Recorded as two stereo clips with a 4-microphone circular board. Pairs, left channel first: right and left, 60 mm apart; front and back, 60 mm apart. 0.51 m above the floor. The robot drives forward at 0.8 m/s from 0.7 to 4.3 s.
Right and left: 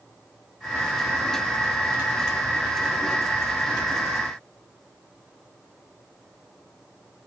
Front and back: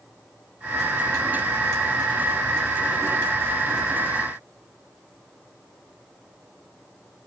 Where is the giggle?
No giggle in this recording.